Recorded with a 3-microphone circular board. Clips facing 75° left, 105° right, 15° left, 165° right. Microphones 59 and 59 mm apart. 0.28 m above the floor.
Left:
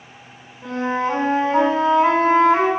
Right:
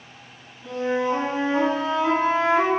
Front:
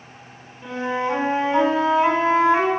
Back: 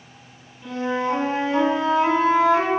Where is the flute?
75° left, 3 m.